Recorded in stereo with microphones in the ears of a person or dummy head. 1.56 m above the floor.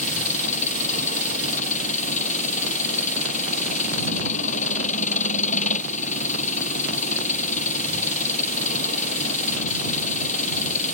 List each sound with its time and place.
0.0 s an engine running: 40° left (ahead or behind)